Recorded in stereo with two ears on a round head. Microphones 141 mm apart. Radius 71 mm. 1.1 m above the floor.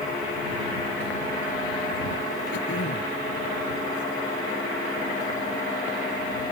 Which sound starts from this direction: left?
Throat clearing, at 2.5 s.